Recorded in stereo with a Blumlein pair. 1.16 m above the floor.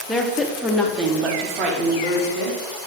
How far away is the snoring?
No snoring in this recording.